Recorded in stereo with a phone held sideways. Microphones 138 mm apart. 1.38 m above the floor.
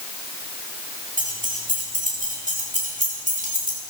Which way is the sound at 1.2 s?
85° right.